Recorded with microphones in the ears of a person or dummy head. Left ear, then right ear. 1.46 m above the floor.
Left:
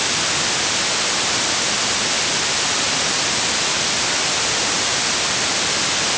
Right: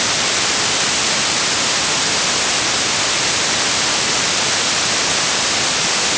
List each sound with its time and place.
Only background noise.